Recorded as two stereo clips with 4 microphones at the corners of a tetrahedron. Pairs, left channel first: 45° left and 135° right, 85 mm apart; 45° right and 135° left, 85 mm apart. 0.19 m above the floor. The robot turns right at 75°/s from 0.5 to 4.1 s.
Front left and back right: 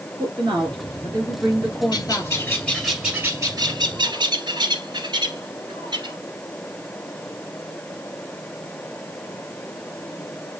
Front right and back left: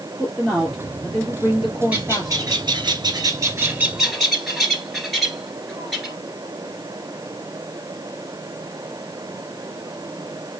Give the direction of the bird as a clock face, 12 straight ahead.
10 o'clock.